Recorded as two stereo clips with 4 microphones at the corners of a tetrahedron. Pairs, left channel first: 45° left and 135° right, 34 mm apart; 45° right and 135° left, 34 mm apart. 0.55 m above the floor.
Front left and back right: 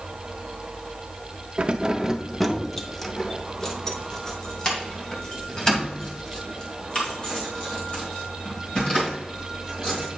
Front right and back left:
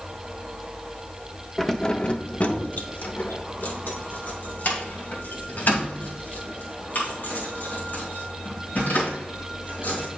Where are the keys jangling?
125° right, 0.5 m; by 10.1 s 20° right, 5 m.